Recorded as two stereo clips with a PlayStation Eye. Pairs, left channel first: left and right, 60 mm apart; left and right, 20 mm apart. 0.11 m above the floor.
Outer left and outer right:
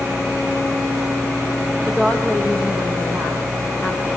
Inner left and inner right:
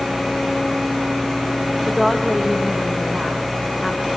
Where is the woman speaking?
25° left (ahead or behind), 7 m.